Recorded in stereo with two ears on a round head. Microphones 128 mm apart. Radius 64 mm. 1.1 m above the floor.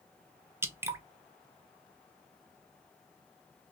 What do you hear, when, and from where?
0.6 s dripping: 20° right (ahead or behind), 0.5 m